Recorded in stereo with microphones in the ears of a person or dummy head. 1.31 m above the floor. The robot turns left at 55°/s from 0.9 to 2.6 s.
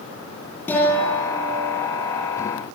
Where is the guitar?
10° left, 10 m; by 1.9 s 40° right, 10 m.